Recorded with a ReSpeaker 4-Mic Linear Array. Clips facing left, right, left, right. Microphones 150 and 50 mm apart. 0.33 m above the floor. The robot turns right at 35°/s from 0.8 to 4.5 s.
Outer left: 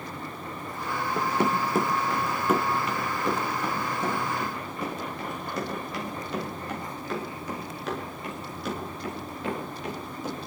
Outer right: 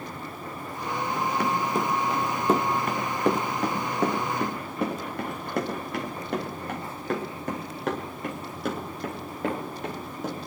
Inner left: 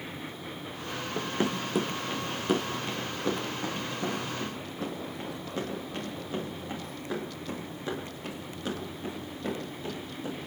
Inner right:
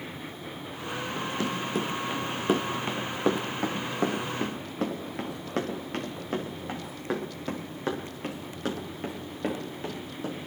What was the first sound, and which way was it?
Running footsteps, 40° left (ahead or behind).